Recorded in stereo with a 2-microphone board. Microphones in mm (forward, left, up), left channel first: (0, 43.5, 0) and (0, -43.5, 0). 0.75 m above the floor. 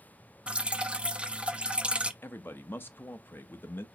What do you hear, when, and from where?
0.5 s dripping: 15° right (ahead or behind), 0.5 m
2.2 s a man speaking: 25° left (ahead or behind), 0.7 m